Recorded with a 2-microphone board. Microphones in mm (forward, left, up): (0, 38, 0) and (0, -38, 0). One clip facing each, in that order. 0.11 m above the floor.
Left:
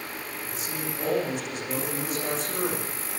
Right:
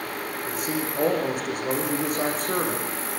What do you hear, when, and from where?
0.5 s a man speaking: 50° right (ahead or behind), 8 m